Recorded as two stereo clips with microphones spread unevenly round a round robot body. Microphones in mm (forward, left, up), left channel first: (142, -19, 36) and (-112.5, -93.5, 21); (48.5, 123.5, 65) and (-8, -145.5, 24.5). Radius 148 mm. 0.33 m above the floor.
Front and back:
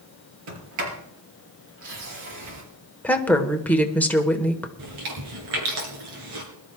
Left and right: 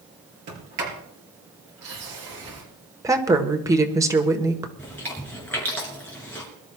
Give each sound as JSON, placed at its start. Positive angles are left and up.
{"t": 0.5, "sound": "a sliding door", "azimuth_deg": -150, "distance_m": 4.5}
{"t": 3.0, "sound": "a woman speaking", "azimuth_deg": -65, "distance_m": 1.3}
{"t": 4.8, "sound": "chewing", "azimuth_deg": 165, "distance_m": 3.5}